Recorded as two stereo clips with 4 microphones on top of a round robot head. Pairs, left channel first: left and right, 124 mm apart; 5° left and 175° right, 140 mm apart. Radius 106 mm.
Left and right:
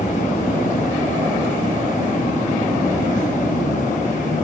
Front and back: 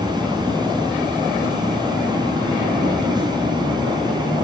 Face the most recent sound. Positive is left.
turn(degrees=125)